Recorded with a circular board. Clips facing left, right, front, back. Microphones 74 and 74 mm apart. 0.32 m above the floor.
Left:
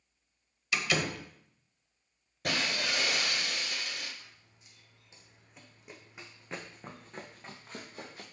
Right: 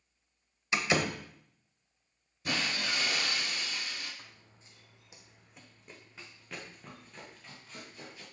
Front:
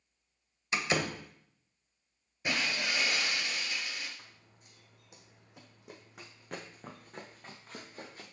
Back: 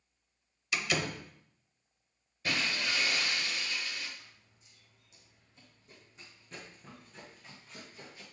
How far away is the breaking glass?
About 2.5 m.